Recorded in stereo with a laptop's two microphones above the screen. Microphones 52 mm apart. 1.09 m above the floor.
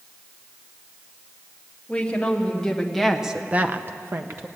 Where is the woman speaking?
15° left (ahead or behind), 1.7 m; by 4.5 s 50° right (ahead or behind), 0.9 m.